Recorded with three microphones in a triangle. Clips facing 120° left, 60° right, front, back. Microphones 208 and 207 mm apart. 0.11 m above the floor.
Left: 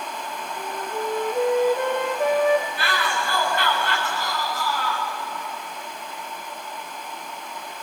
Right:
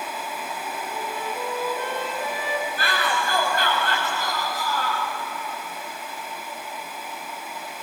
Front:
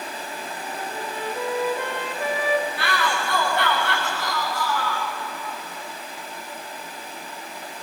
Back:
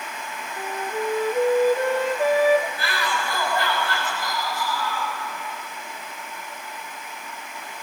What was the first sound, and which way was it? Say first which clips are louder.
A flute: left 3 dB, back 8 dB; 140° left.